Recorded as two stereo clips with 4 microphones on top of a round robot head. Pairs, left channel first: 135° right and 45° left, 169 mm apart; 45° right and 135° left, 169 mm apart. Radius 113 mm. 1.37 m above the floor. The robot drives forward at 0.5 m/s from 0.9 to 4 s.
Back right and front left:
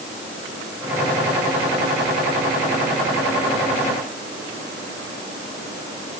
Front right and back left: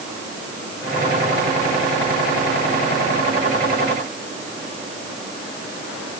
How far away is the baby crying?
No baby crying in this recording.